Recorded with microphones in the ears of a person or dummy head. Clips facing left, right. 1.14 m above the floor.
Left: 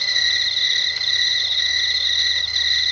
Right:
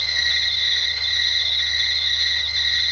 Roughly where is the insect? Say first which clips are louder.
Left 1 dB; left.